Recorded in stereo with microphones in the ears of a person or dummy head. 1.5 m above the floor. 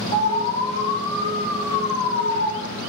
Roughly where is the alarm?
Left.